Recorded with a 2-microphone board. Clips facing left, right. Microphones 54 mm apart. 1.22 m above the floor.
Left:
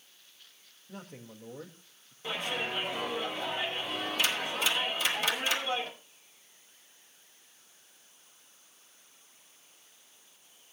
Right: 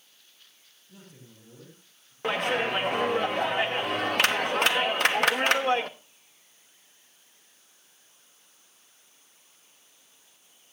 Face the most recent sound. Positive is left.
turn(degrees=-60)  # may be behind; listen again after turning